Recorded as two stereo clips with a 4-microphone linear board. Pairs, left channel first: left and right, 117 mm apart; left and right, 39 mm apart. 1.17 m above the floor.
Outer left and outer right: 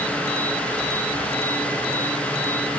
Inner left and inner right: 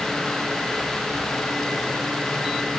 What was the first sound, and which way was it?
Only background noise.